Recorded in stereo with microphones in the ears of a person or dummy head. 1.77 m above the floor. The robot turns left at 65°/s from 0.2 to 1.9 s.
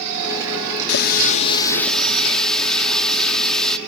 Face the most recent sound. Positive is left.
turn(degrees=0)